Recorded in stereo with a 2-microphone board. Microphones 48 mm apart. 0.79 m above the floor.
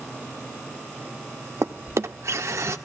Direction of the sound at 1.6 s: 65° right (ahead or behind).